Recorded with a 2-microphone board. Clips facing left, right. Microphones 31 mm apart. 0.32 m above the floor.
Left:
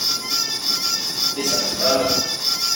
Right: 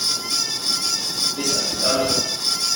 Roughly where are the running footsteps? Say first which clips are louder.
Left 3 dB; left.